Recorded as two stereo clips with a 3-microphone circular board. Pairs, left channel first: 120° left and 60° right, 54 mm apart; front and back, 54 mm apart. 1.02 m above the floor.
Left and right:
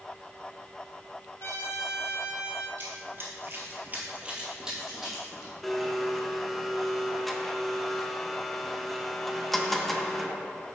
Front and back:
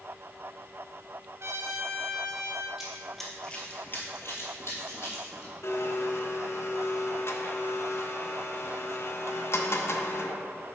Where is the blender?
35° left, 0.5 m.